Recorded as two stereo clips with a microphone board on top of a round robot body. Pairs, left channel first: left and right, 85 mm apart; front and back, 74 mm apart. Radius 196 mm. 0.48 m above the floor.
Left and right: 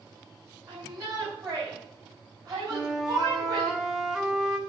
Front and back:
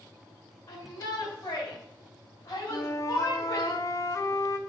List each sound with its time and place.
0.7 s a shout: 30° right, 5 m; by 3.7 s 40° right, 4 m
2.7 s a flute: 10° right, 1.4 m